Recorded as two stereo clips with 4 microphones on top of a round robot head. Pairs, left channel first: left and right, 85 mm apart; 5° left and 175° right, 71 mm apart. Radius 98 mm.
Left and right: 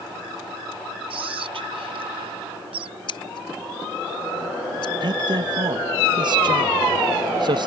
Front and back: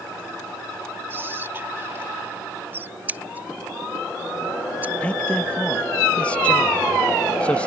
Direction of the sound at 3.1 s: 120° left.